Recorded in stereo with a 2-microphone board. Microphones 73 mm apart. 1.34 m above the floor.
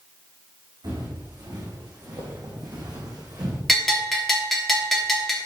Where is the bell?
Centre (ahead or behind), 3 m.